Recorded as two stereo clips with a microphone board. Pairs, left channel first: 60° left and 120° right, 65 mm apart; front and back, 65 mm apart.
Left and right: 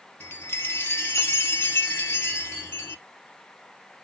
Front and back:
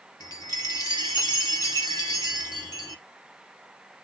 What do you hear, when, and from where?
0.2 s a chime: 10° left, 0.6 m